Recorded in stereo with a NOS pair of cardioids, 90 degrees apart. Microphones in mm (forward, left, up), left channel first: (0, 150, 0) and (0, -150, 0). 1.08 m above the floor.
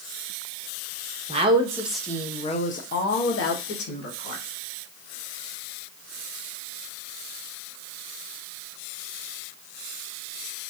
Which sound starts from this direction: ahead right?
A woman speaking, at 1.3 s.